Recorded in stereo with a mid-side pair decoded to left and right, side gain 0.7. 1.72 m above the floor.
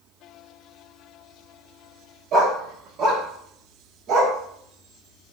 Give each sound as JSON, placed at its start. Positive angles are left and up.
{"t": 2.3, "sound": "a dog barking", "azimuth_deg": -55, "distance_m": 3.5}